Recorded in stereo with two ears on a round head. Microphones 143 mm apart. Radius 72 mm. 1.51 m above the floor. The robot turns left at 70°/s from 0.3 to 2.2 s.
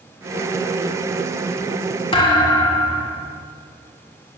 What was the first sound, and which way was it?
A thud, 35° left (ahead or behind).